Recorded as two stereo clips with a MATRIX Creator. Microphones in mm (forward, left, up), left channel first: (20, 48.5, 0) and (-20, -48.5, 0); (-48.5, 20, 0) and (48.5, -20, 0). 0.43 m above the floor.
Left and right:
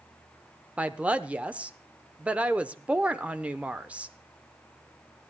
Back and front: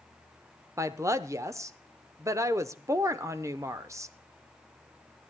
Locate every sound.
0.8 s a woman speaking: 45° right, 0.8 m